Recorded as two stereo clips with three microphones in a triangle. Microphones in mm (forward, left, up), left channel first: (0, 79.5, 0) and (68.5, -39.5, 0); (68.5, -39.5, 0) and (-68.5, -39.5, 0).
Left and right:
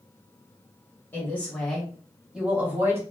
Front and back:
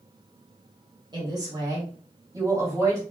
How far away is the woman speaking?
About 1.6 m.